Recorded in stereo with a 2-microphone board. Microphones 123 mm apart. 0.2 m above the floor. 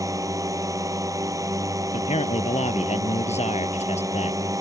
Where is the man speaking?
65° left (ahead or behind).